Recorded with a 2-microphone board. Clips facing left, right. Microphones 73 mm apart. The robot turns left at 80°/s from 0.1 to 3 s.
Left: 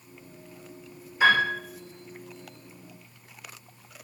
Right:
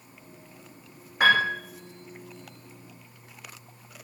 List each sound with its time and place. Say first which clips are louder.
1.2 s a piano: even; 60° right (ahead or behind), 6 m; by 1.5 s 35° right (ahead or behind), 6 m